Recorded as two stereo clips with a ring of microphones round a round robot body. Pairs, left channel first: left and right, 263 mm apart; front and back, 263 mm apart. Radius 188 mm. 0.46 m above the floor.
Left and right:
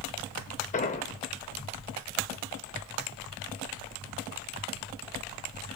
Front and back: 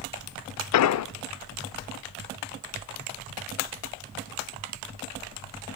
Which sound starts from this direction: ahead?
An explosion, at 0.7 s.